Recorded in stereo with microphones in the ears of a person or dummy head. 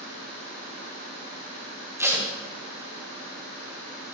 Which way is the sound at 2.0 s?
15° right (ahead or behind).